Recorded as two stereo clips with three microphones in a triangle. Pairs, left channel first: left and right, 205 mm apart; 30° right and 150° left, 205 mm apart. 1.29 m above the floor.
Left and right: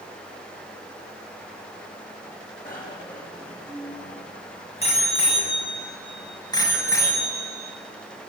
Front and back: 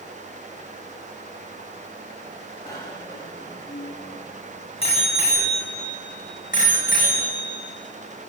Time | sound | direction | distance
2.6 | a bicycle bell | 45° left | 8 m